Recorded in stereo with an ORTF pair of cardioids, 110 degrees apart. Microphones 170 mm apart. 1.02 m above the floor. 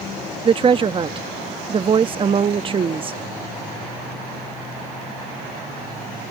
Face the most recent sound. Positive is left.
turn(degrees=-30)